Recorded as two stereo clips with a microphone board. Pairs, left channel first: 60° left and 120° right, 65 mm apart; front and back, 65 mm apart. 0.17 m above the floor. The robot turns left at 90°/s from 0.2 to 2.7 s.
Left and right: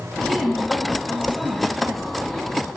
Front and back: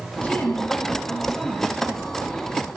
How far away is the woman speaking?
About 1.0 m.